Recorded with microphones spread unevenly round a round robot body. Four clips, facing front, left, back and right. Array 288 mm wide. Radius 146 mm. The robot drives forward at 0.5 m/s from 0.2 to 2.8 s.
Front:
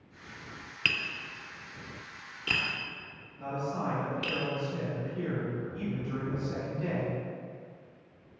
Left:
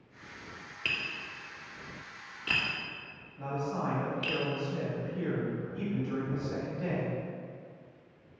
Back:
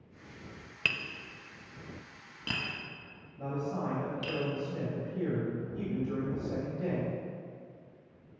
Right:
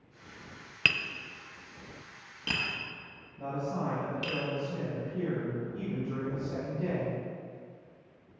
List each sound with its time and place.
0.8 s tapping: 90° right, 0.6 m; by 4.4 s 150° right, 1.2 m
3.4 s a man speaking: 175° right, 3 m